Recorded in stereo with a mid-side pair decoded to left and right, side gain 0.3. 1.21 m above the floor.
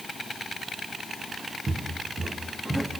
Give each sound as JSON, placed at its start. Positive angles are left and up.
{"t": 1.7, "sound": "footsteps", "azimuth_deg": -45, "distance_m": 7.0}